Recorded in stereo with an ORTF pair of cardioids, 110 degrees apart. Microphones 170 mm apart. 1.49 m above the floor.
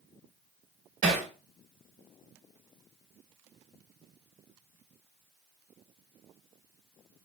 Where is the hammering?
50° right, 1.7 m.